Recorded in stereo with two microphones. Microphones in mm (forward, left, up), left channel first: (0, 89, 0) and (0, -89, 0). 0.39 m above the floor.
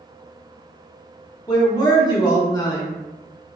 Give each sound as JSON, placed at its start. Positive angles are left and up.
{"t": 1.5, "sound": "a man speaking", "side_deg": 25, "distance_m": 0.9}